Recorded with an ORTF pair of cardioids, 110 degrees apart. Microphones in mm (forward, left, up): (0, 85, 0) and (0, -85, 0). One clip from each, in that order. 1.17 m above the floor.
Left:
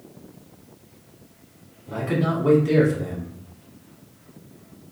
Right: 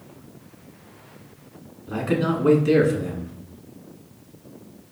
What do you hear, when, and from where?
1.9 s a man speaking: 20° right, 1.6 m